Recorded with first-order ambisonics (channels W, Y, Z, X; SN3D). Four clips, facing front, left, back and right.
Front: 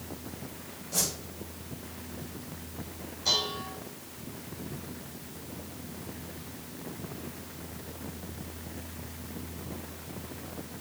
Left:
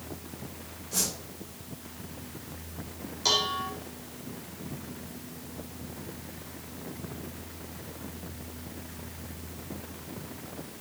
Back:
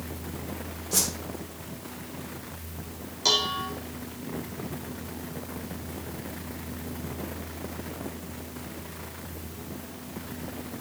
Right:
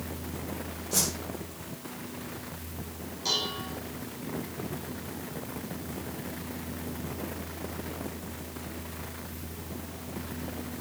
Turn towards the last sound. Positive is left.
turn(degrees=150)